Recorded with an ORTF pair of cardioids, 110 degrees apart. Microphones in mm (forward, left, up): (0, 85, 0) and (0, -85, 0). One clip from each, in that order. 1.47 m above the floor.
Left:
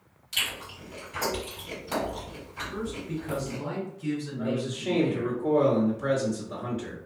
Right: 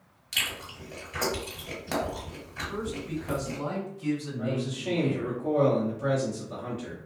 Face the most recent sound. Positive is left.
turn(degrees=5)